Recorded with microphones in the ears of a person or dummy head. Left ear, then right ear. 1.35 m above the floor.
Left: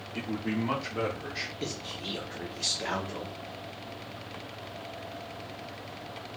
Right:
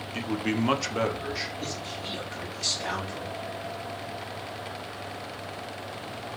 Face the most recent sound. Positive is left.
turn(degrees=30)  # may be behind; listen again after turning